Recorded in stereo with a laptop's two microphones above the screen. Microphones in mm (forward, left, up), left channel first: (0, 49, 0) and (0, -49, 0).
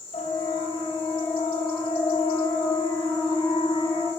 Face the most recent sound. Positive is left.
turn(degrees=60)  # may be behind; listen again after turning